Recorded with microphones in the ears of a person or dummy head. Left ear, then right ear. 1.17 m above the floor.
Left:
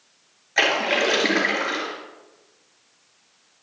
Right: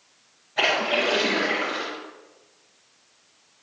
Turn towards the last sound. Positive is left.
turn(degrees=60)  # may be behind; listen again after turning